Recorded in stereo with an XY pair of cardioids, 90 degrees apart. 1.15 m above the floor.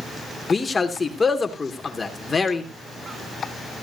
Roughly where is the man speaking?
Ahead left.